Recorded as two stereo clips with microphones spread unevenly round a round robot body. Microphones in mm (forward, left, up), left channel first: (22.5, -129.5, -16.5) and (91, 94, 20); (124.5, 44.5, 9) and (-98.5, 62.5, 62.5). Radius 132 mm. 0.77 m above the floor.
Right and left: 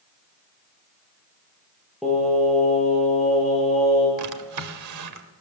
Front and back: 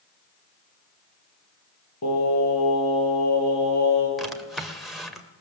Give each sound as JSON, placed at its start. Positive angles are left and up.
{"t": 2.0, "sound": "singing", "azimuth_deg": -15, "distance_m": 10.0}
{"t": 4.2, "sound": "a drawer", "azimuth_deg": 85, "distance_m": 2.0}